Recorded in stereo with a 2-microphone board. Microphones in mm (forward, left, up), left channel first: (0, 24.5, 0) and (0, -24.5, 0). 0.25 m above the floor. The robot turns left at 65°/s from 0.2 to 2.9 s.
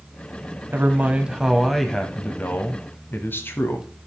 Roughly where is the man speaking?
Behind right.